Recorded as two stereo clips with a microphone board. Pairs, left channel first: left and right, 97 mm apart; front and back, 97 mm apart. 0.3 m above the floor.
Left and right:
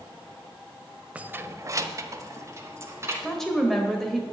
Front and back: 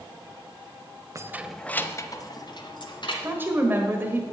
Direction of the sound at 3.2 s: 170° left.